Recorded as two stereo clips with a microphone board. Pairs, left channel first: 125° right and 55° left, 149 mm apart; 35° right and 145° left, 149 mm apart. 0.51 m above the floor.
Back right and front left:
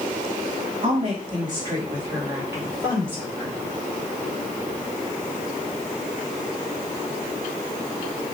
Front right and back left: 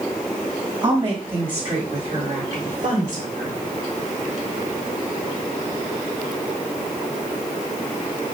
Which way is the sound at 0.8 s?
95° left.